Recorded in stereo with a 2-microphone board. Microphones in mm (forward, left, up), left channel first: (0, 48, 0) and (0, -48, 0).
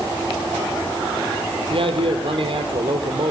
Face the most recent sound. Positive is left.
turn(degrees=-65)  # may be behind; listen again after turning